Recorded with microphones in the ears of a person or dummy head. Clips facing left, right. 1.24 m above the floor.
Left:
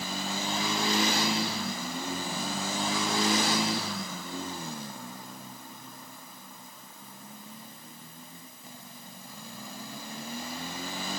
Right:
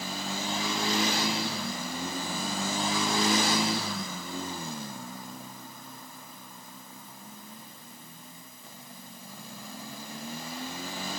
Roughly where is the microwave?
I don't hear a microwave.